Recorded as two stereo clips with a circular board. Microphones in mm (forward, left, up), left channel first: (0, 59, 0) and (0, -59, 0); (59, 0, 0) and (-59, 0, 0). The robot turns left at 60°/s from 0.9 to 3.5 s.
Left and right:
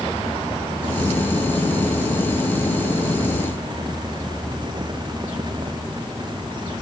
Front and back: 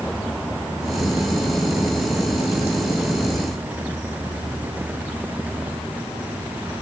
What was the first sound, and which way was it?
Only background noise.